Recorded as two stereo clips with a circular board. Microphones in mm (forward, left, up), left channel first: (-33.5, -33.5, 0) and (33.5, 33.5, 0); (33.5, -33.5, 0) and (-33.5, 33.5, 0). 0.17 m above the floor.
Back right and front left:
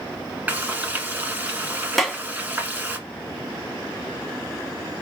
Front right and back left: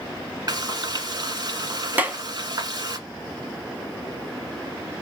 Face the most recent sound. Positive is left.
turn(degrees=140)